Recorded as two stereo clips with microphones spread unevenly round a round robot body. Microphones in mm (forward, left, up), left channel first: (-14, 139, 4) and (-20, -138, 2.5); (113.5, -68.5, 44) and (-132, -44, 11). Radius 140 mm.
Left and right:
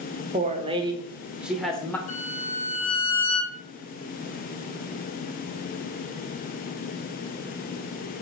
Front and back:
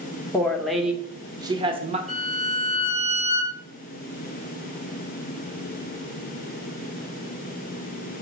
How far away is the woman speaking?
About 1.2 m.